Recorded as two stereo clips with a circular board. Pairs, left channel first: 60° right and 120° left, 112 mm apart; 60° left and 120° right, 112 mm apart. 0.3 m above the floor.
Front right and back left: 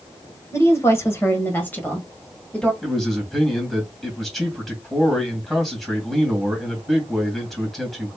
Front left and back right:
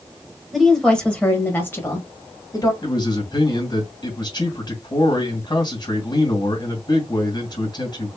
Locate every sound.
0.5 s a woman speaking: 30° right, 1.6 m; by 2.7 s 20° left, 2 m
2.8 s a man speaking: 30° left, 2 m